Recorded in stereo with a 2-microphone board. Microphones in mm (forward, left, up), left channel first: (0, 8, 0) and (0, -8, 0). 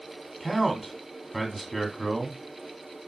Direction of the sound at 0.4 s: 5° left (ahead or behind).